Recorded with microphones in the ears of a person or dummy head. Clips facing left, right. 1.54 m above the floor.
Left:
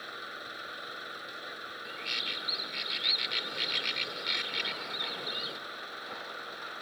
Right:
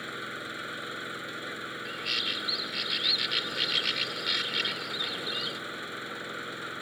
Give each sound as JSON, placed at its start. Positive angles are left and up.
{"t": 0.0, "sound": "an engine running", "side_deg": -35}
{"t": 1.9, "sound": "a bird", "side_deg": -5}